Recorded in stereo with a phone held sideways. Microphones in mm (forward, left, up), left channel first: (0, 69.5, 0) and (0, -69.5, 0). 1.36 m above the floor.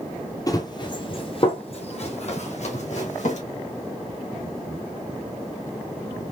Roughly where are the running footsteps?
Left.